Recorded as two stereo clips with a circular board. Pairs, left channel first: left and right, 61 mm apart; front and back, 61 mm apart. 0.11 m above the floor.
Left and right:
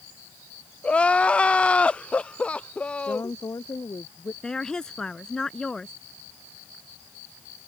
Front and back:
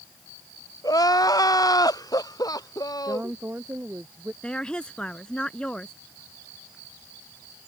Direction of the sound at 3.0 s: 120° left.